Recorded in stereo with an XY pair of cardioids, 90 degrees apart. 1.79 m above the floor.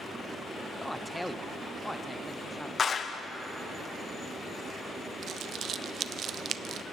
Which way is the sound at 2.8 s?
50° left.